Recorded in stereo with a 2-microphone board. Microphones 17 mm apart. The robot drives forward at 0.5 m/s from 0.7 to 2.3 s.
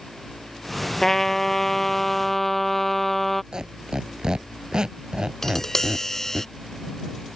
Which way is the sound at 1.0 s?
30° left (ahead or behind).